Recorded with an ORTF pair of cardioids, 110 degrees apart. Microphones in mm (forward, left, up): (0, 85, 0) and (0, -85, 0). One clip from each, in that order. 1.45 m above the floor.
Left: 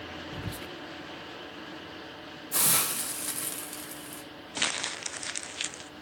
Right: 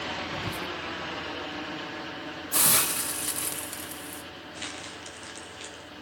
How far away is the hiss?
About 1.7 m.